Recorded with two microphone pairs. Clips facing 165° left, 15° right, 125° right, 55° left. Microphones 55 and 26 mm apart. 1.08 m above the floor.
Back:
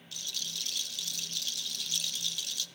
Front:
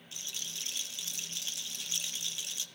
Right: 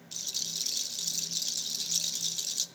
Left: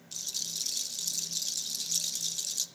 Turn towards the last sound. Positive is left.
turn(degrees=-65)